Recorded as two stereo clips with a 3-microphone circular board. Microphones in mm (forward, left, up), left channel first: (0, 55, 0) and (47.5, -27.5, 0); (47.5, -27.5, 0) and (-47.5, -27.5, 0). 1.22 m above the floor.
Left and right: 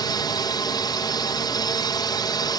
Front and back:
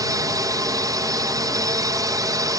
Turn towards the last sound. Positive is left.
turn(degrees=145)